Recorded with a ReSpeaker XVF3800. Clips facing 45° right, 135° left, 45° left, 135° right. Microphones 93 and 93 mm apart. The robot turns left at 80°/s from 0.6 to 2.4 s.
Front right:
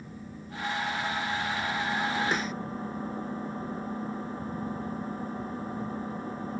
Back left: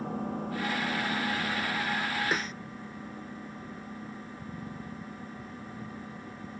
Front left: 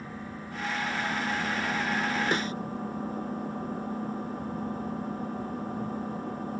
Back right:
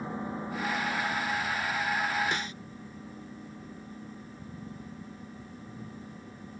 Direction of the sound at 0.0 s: 155° left.